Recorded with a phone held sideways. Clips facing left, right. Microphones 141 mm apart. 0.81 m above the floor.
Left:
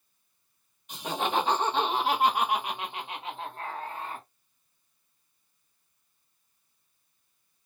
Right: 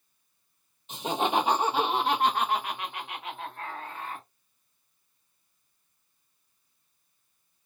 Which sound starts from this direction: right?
Laughter, at 0.9 s.